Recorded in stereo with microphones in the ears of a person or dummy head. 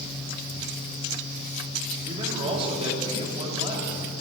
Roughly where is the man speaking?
Right.